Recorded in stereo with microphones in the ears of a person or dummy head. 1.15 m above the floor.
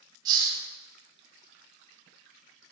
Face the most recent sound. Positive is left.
turn(degrees=-30)  # may be behind; listen again after turning